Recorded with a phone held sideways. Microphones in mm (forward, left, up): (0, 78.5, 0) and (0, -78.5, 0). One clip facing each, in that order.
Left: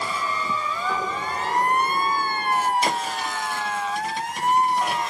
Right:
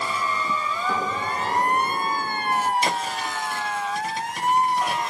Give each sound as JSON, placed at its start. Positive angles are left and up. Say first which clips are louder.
{"t": 0.9, "sound": "an explosion", "louder": "right 2 dB", "side_deg": -30, "distance_m": 1.0}
{"t": 2.8, "sound": "a thud", "louder": "left 1 dB", "side_deg": 0, "distance_m": 1.1}